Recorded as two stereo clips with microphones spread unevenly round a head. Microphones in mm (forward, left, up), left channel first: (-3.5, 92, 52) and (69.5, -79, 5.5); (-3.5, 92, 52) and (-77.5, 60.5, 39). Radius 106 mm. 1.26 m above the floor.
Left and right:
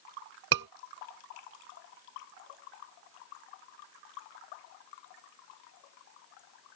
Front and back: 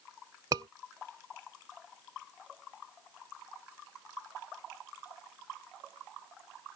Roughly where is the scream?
Right.